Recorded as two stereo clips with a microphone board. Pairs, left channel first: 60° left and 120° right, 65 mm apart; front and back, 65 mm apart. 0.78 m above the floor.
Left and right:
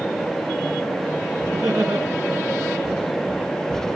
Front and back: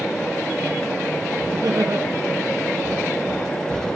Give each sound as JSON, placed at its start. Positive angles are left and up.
{"t": 1.5, "sound": "laughter", "azimuth_deg": -150, "distance_m": 7.5}